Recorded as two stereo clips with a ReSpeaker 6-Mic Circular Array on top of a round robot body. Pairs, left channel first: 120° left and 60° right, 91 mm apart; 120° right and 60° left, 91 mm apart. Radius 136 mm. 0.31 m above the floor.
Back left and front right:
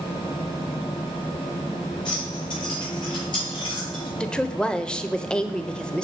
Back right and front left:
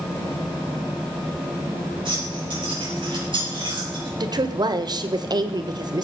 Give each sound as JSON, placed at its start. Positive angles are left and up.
{"t": 2.0, "sound": "keys jangling", "azimuth_deg": 90, "distance_m": 8.5}
{"t": 4.2, "sound": "a woman speaking", "azimuth_deg": 40, "distance_m": 1.4}